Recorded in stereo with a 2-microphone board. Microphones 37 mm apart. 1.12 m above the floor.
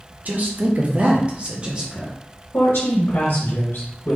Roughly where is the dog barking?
No dog barking in this recording.